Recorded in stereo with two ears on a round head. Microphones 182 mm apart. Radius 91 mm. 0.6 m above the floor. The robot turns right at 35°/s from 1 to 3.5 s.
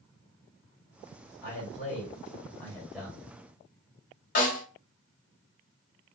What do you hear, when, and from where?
1.4 s a man speaking: 50° left (ahead or behind), 1.6 m; by 3.3 s 15° right (ahead or behind), 1.6 m
4.3 s a snare drum: 40° left (ahead or behind), 1.5 m